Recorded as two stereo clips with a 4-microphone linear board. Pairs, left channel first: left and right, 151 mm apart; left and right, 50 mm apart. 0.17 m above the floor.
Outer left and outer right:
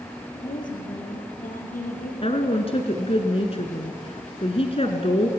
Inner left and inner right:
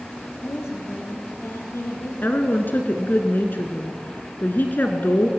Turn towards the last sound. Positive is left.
turn(degrees=45)  # may be behind; listen again after turning